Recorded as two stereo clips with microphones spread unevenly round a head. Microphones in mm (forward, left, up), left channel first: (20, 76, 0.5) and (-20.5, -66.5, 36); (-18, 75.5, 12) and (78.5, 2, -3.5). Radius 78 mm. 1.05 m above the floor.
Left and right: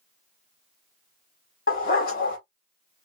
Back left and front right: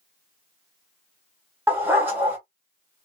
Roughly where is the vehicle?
No vehicle in this recording.